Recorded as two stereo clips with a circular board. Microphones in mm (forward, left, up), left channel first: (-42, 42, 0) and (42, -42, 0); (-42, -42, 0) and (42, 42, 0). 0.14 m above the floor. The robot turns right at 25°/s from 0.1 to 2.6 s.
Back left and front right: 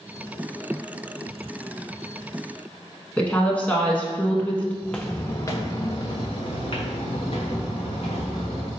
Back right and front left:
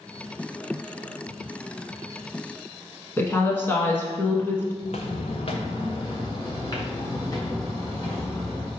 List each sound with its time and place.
3.2 s a woman speaking: 165° right, 1.1 m
4.8 s footsteps: 135° right, 0.7 m; by 8.7 s 165° left, 2.5 m